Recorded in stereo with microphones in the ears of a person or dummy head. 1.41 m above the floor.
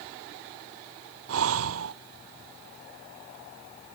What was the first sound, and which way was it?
Breathing, 75° right (ahead or behind).